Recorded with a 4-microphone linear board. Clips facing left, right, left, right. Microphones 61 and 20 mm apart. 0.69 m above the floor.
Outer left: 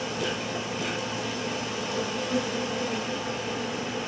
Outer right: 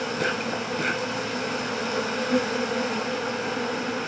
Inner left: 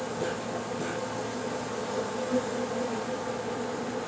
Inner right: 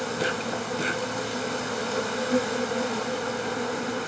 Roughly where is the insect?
Right.